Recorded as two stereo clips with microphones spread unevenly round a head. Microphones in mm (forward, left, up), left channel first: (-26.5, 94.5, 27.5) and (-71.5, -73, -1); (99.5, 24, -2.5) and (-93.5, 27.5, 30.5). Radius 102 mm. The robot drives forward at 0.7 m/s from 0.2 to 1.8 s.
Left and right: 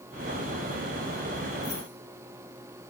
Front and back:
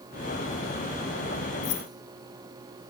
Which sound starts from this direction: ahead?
Keys jangling, at 1.6 s.